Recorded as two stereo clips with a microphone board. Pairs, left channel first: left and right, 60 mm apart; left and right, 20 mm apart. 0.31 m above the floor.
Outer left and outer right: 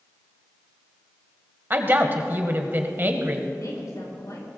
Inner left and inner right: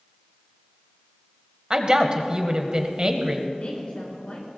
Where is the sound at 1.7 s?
40° right (ahead or behind), 1.3 m.